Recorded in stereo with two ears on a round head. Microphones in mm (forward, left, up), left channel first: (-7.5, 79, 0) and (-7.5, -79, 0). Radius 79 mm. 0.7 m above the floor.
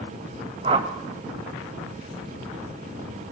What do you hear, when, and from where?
0.6 s a whoosh: 30° right (ahead or behind), 1.9 m